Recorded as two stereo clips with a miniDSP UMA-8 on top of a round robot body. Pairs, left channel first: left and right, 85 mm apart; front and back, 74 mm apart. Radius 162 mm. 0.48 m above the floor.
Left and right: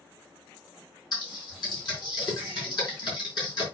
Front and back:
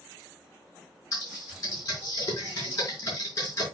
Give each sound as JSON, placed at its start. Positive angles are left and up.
{"t": 1.1, "sound": "typing on a keyboard", "azimuth_deg": 50, "distance_m": 5.0}